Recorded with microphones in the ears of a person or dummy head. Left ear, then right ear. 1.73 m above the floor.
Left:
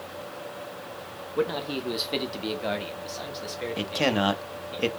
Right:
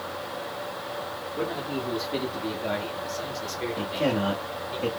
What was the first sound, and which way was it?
A man speaking, 60° left (ahead or behind).